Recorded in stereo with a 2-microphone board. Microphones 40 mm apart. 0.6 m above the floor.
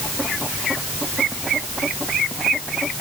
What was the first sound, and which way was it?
Only background noise.